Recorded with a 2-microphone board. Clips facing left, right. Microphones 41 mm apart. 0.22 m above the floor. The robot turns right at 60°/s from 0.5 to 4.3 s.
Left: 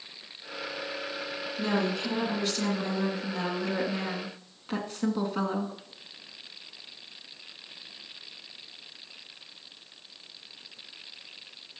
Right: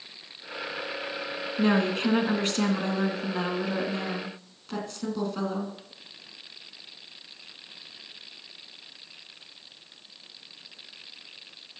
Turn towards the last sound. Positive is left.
turn(degrees=25)